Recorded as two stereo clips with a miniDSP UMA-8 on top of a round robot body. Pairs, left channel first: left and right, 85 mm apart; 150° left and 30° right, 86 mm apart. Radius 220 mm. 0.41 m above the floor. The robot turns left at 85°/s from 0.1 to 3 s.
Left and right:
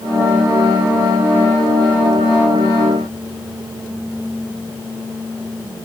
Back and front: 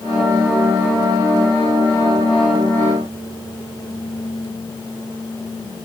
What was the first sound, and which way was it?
Only background noise.